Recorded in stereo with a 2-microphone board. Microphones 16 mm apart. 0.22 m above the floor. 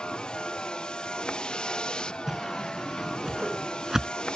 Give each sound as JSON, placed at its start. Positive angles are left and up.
{"t": 0.0, "sound": "a vehicle", "side_deg": 65}
{"t": 2.3, "sound": "a whoosh", "side_deg": -25}